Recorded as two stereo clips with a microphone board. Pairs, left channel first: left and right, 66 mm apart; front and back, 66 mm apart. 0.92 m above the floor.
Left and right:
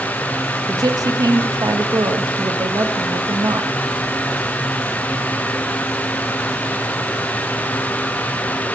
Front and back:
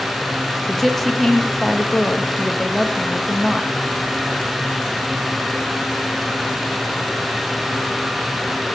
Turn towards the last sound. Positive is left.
turn(degrees=-90)